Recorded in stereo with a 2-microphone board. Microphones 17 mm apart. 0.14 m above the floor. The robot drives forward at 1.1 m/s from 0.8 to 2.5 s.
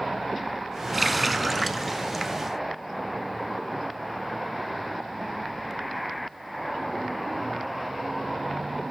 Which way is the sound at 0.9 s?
Centre (ahead or behind).